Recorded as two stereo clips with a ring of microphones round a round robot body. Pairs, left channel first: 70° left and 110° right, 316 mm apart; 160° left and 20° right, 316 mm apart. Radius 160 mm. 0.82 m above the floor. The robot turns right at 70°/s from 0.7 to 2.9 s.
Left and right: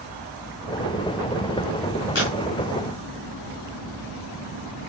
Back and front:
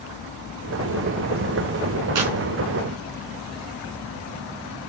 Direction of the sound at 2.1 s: 10° left.